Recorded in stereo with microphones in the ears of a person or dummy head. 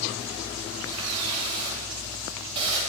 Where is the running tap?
30° right (ahead or behind), 4 m.